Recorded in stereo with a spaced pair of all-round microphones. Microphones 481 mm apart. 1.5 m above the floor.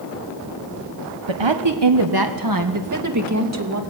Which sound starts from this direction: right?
A woman speaking, at 1.3 s.